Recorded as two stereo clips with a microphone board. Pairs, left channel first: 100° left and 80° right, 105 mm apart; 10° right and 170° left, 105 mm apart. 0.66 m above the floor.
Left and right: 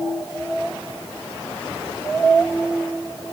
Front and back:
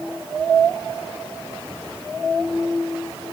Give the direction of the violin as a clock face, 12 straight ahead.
I don't hear a violin.